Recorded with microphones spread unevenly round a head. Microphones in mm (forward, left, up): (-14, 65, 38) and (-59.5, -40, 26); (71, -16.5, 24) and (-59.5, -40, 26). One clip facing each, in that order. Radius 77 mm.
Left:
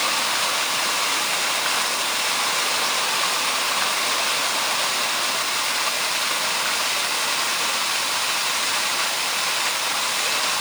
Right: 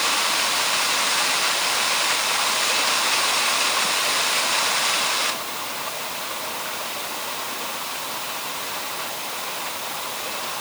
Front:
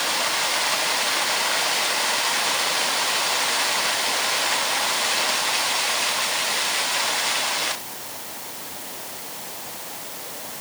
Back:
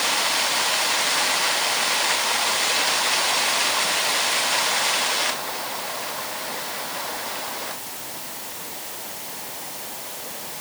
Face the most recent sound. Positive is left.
No sound to turn to.